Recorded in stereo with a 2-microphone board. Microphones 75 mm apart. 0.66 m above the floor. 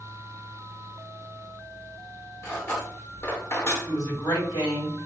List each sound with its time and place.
2.4 s cutlery clinking: 35° left (ahead or behind), 0.9 m
3.9 s a woman speaking: 65° left (ahead or behind), 1.9 m